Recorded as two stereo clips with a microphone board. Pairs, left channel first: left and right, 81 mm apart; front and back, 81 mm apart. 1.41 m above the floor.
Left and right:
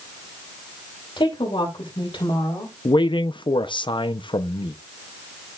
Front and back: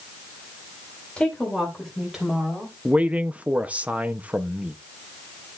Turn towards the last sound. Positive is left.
turn(degrees=105)